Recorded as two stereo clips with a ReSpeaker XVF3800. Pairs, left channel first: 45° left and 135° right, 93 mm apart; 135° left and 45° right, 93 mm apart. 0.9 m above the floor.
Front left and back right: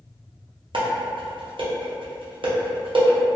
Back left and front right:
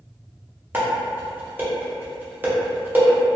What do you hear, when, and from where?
0.7 s dishes clattering: 115° right, 0.6 m